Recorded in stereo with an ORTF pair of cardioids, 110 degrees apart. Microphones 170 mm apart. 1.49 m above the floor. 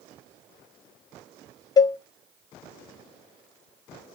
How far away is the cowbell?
About 0.5 m.